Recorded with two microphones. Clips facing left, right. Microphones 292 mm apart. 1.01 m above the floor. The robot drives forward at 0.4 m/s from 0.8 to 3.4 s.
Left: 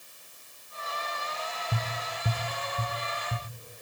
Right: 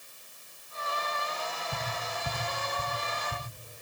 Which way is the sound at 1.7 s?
65° left (ahead or behind).